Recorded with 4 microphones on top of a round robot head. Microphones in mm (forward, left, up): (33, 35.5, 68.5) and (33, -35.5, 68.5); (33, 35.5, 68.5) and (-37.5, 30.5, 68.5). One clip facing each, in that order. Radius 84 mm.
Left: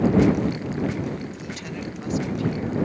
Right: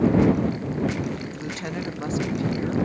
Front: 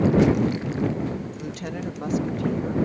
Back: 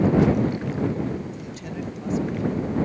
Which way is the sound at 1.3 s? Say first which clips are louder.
Right 3 dB, front 2 dB; 40° right.